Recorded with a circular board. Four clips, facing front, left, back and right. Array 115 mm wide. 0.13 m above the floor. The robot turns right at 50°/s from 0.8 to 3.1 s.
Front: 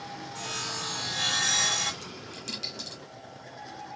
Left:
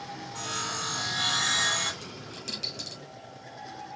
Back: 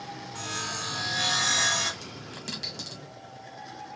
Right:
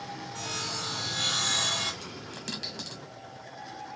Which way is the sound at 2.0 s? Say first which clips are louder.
Right 1 dB, back 1 dB; 160° right.